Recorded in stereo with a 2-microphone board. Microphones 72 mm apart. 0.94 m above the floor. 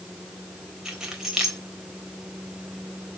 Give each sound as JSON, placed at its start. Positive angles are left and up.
{"t": 0.8, "sound": "keys jangling", "side_deg": -5, "distance_m": 3.5}